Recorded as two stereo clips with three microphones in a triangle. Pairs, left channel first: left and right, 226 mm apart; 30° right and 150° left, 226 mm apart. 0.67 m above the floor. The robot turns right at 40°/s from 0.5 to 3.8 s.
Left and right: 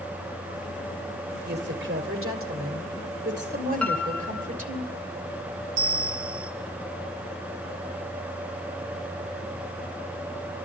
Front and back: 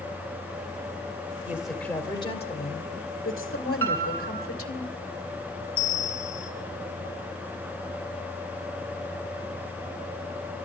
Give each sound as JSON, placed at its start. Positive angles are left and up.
{"t": 1.5, "sound": "a woman speaking", "azimuth_deg": -130, "distance_m": 2.5}
{"t": 3.8, "sound": "a piano", "azimuth_deg": 175, "distance_m": 1.2}
{"t": 5.8, "sound": "a bell", "azimuth_deg": -60, "distance_m": 1.9}